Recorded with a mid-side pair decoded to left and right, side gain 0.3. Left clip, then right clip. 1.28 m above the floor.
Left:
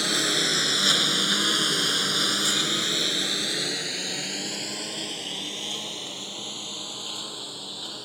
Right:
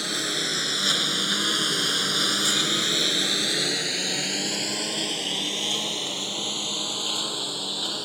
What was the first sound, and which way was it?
A lawn mower, 30° left.